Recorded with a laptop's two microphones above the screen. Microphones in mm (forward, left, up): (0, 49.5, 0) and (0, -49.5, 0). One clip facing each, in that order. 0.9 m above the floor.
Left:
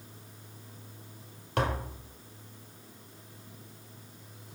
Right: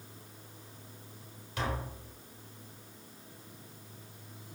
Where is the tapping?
60° left (ahead or behind), 1.2 m.